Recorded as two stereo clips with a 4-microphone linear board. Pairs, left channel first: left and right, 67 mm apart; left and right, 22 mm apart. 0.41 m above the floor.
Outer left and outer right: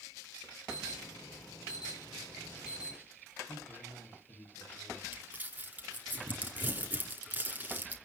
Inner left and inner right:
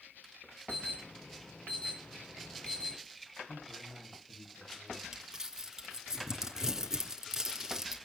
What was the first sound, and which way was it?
An alarm, 80° left.